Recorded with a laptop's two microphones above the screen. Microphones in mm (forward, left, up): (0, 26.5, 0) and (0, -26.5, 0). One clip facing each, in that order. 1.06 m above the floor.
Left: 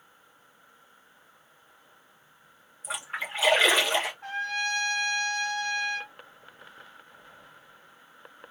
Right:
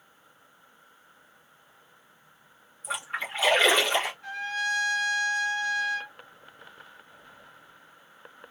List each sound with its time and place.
2.8 s a splash: centre (ahead or behind), 0.9 m
4.2 s a trumpet: 45° left (ahead or behind), 0.9 m